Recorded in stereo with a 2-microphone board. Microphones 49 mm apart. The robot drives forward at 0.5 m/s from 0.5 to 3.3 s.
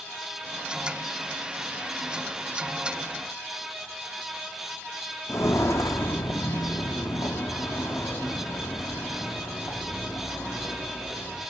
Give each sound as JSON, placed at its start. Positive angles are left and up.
{"t": 5.3, "sound": "footsteps", "side_deg": 65, "distance_m": 0.6}